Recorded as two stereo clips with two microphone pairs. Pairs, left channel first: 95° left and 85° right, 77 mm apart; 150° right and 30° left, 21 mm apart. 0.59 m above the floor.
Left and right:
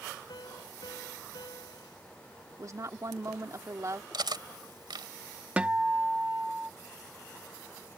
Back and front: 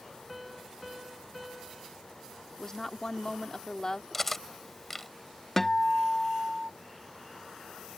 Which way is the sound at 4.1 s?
75° right.